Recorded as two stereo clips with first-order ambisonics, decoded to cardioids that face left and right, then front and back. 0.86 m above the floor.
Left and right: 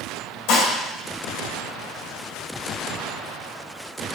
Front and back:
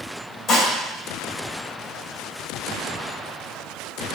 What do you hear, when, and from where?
0.5 s dishes clattering: 65° left, 2.5 m